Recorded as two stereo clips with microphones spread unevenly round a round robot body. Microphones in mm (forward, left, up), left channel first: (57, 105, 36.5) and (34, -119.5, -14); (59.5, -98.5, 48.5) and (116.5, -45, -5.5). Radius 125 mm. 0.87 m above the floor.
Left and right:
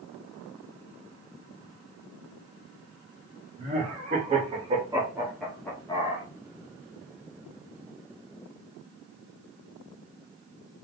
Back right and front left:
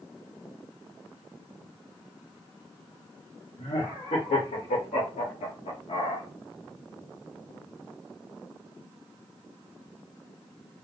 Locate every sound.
3.6 s laughter: 155° right, 1.8 m; by 6.2 s 140° left, 0.7 m